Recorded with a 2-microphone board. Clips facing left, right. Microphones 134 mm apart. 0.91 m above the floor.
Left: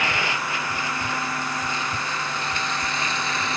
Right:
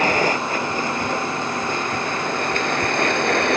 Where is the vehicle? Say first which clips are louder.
Right 7 dB; 45° right (ahead or behind); by 3.6 s 65° right (ahead or behind).